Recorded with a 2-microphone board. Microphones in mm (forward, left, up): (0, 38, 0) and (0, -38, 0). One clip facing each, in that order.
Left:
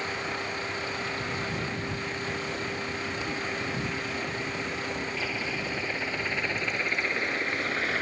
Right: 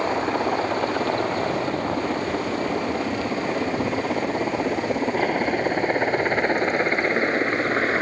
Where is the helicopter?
60° right (ahead or behind); by 8.0 s 35° right (ahead or behind).